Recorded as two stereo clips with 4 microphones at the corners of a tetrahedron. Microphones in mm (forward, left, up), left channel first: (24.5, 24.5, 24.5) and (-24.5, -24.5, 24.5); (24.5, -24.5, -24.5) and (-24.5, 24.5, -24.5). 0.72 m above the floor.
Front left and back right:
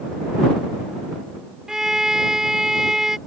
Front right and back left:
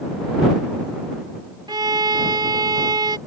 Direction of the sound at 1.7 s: 145° left.